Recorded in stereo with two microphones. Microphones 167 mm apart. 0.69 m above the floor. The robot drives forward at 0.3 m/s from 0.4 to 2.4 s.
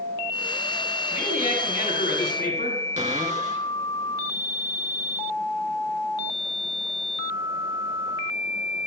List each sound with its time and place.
1.1 s a man speaking: 45° left (ahead or behind), 5.5 m
3.0 s a cupboard door: 45° right (ahead or behind), 2.5 m